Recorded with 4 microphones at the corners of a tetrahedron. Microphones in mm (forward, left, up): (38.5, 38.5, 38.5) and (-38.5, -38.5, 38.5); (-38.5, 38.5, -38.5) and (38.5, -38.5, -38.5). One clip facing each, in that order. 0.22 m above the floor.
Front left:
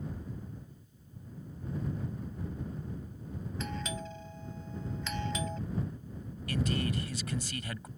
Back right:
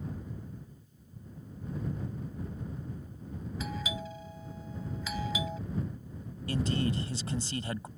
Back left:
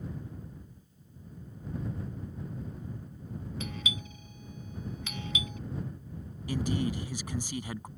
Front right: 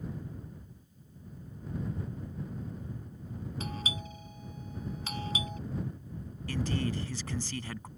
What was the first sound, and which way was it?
A doorbell, 55° right.